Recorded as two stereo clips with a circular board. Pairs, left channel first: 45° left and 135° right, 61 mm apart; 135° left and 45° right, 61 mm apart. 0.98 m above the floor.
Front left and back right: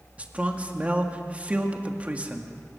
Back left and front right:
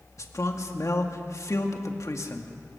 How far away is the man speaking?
About 2 m.